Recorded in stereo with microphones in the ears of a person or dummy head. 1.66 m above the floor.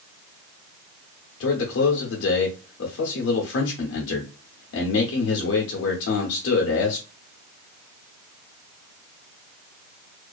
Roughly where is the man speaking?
Left.